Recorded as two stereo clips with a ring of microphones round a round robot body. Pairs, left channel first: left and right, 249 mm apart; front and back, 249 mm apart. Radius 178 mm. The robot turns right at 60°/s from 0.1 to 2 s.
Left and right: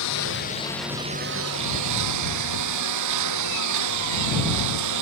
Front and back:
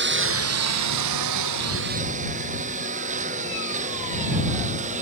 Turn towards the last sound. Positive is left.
turn(degrees=-110)